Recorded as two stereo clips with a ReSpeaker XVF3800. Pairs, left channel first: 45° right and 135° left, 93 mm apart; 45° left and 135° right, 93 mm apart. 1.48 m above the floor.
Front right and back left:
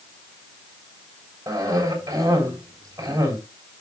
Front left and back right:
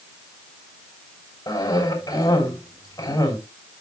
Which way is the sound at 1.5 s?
80° left.